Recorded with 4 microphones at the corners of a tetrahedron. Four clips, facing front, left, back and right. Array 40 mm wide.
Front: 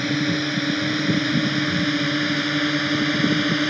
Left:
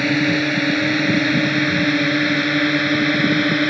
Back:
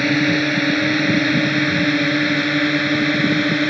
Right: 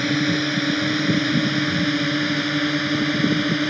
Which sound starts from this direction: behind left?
A drone, at 0.0 s.